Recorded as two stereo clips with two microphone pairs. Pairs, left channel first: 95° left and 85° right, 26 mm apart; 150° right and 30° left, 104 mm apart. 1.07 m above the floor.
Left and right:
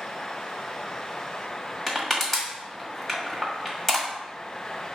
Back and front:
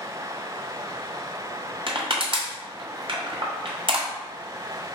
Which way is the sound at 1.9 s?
25° left.